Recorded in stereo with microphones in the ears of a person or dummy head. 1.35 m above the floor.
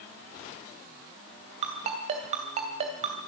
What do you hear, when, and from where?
1.6 s a ringtone: 40° right (ahead or behind), 3 m